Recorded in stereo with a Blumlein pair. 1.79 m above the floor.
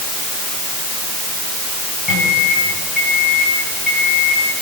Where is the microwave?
5° left, 8.5 m.